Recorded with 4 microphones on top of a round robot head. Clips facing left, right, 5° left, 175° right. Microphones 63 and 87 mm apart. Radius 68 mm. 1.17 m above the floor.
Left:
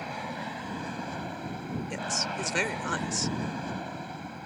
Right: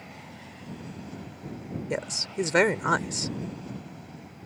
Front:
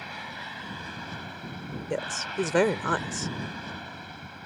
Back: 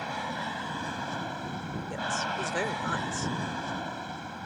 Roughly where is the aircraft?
Behind left.